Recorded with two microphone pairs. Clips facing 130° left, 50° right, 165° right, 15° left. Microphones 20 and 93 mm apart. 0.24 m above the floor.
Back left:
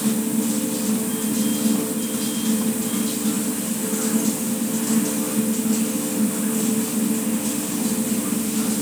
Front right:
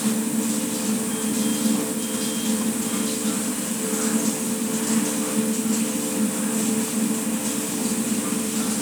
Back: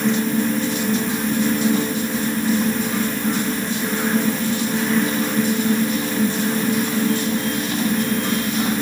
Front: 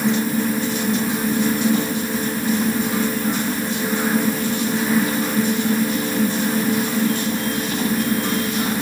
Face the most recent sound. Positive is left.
No sound to turn to.